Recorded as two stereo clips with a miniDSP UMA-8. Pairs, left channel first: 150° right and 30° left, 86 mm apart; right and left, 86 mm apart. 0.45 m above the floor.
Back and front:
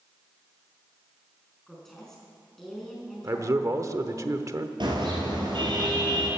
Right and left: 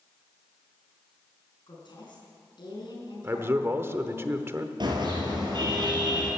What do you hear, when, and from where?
1.7 s a woman speaking: 65° right, 4.5 m
3.2 s a man speaking: 50° left, 0.9 m
4.8 s a car horn: 60° left, 4.5 m